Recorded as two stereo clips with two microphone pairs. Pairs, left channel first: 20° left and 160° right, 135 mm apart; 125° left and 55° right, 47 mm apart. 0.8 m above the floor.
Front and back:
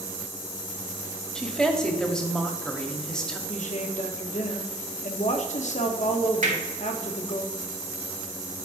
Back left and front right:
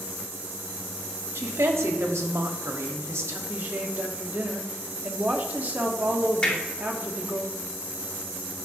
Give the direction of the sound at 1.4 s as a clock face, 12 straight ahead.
2 o'clock.